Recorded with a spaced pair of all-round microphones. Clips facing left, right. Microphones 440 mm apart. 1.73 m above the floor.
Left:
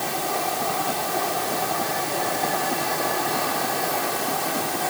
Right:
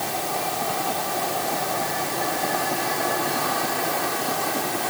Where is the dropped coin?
No dropped coin in this recording.